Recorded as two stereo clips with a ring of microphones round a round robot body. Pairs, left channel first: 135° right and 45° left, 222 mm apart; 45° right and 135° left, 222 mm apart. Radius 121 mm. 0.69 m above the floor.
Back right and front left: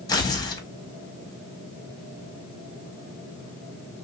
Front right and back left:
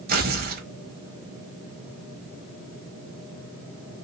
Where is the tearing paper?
160° left, 1.3 m.